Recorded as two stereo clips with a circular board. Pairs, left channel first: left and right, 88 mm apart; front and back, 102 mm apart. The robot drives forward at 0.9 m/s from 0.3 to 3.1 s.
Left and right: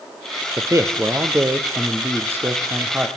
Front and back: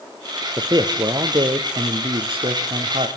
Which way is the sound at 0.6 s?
135° right.